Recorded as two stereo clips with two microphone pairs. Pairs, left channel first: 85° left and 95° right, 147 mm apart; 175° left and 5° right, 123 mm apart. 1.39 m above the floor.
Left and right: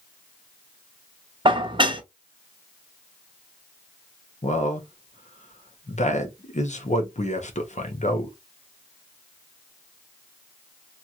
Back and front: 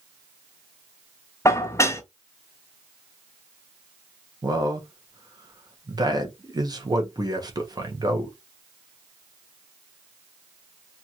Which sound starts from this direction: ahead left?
A man speaking, at 4.4 s.